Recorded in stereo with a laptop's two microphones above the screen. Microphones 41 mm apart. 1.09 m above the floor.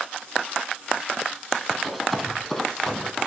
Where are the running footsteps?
Centre (ahead or behind), 1.6 m; by 3.3 s 15° left (ahead or behind), 2 m.